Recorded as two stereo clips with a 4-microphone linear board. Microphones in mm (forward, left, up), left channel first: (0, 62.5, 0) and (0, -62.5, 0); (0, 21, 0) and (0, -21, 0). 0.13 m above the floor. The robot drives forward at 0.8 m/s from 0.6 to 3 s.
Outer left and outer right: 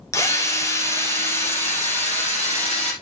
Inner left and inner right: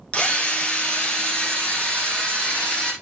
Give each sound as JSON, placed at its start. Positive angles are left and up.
{"t": 0.1, "sound": "a drill", "side_deg": 25, "distance_m": 2.5}